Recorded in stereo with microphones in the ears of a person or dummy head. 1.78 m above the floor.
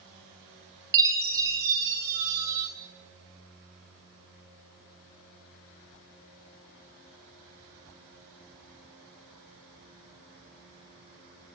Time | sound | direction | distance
0.9 | a chime | 15° right (ahead or behind) | 0.7 m